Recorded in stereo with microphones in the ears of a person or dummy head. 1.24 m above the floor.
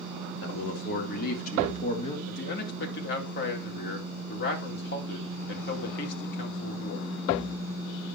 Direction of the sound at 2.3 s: 60° left (ahead or behind).